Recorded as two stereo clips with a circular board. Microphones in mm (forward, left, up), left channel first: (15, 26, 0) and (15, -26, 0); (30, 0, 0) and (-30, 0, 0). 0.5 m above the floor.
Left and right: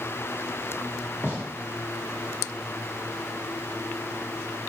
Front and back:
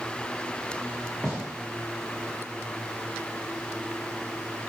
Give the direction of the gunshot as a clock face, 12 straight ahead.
9 o'clock.